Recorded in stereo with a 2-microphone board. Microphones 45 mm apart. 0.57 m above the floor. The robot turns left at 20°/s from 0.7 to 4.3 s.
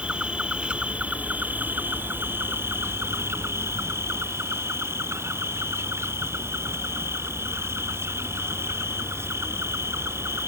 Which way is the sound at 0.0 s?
25° right.